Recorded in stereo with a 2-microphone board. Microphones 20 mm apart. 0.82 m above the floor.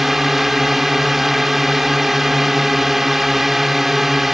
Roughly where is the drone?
Centre.